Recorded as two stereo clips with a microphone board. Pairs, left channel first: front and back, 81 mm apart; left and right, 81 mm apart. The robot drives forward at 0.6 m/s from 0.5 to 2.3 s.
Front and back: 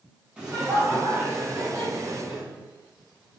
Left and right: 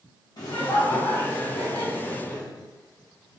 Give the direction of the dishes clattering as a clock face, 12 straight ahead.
No dishes clattering in this recording.